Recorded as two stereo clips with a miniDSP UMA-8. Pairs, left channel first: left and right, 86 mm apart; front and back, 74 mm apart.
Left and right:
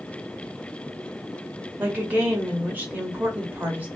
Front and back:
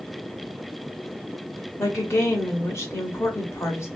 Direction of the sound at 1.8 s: 30° right.